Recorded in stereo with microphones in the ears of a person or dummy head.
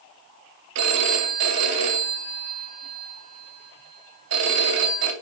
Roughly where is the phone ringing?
Right.